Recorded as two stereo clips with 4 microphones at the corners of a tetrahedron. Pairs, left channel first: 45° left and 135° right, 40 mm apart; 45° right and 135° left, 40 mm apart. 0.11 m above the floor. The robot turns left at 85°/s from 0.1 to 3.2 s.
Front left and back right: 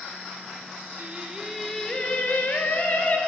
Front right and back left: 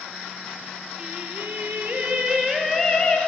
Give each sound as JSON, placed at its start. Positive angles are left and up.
{"t": 1.0, "sound": "singing", "azimuth_deg": -170, "distance_m": 1.7}